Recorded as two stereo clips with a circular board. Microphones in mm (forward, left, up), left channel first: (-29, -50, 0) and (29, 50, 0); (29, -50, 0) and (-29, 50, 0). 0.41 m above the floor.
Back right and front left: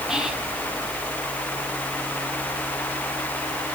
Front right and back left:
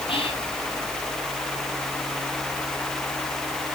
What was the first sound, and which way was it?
Whispering, 25° right.